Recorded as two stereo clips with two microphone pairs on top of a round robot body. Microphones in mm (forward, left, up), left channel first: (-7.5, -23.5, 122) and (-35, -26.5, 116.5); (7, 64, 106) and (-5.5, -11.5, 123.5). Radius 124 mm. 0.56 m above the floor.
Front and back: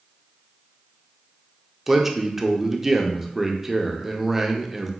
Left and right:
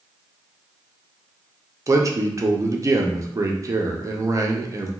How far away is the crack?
I don't hear a crack.